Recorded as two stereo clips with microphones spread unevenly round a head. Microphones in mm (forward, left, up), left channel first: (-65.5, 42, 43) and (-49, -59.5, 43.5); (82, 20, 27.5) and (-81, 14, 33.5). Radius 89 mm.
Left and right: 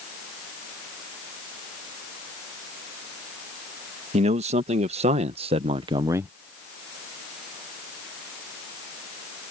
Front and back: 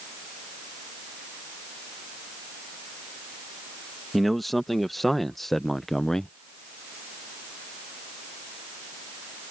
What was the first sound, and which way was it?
A man speaking, 90° right.